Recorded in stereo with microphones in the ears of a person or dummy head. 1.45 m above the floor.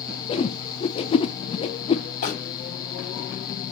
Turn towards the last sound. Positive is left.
turn(degrees=50)  # may be behind; listen again after turning